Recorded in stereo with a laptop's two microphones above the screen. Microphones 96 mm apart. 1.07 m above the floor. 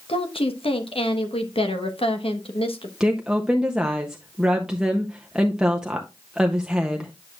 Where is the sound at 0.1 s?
75° left (ahead or behind), 1.1 m.